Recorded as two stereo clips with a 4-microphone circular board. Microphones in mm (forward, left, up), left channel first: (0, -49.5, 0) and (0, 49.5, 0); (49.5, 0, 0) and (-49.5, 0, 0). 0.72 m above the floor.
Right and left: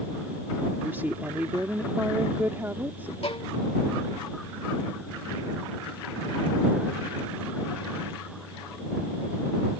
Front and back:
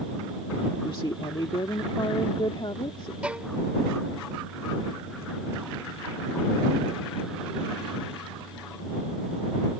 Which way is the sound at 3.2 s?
105° right.